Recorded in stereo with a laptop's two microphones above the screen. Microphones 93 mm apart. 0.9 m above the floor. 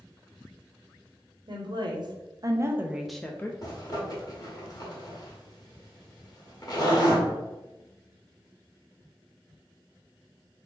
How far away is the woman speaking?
About 1.1 m.